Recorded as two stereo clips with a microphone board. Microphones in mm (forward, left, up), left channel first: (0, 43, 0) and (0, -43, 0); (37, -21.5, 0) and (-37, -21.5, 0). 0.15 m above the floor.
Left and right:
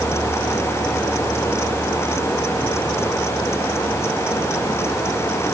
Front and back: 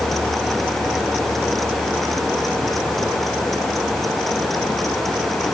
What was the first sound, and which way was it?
Only background noise.